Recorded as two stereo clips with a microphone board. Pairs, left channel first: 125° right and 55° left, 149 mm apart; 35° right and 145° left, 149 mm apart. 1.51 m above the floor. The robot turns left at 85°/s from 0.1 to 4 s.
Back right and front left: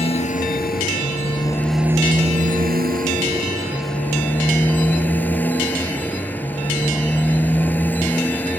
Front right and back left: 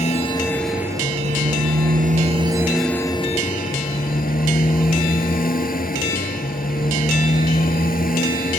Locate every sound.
0.0 s a motorcycle: 75° right; by 8.6 s 45° right